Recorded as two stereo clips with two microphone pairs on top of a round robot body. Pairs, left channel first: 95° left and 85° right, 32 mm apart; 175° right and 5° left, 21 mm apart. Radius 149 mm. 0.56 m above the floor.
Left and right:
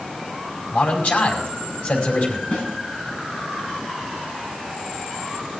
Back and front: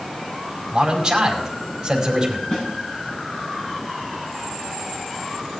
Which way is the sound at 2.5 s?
140° left.